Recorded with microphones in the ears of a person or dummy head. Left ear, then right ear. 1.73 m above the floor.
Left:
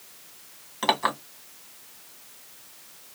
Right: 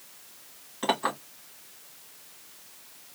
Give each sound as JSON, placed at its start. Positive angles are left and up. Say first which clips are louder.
{"t": 0.8, "sound": "a clink", "louder": "left 4 dB", "side_deg": 20, "distance_m": 1.3}